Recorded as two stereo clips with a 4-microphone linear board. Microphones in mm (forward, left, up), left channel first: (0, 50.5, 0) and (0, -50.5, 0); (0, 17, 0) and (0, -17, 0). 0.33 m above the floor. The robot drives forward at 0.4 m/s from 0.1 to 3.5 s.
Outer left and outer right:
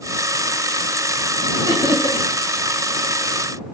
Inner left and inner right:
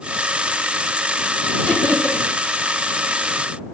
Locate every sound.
1.7 s laughter: 45° left (ahead or behind), 1.8 m